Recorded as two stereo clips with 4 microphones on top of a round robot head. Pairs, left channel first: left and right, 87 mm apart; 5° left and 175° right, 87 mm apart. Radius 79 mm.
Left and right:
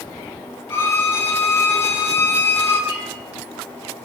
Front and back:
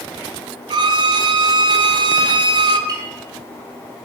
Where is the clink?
145° left, 8.5 m.